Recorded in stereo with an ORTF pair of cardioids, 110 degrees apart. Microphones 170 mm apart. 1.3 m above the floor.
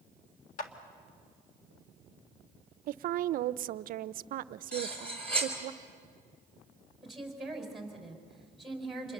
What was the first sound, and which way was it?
A clap, 55° left.